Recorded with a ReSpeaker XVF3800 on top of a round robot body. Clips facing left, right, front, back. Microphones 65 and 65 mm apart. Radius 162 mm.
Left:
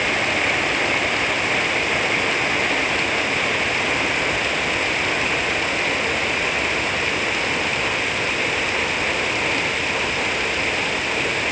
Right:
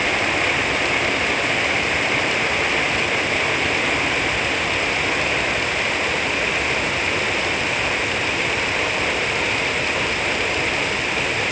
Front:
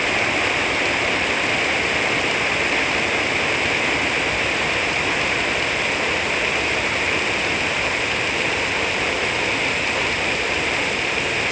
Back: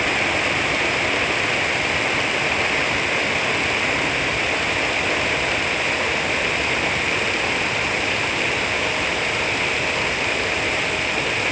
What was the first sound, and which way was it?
Only background noise.